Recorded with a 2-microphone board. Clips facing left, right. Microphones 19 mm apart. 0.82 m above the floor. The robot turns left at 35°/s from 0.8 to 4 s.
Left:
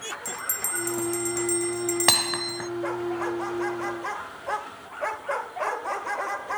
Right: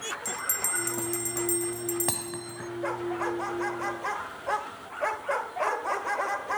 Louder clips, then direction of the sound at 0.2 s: Even; 175° right.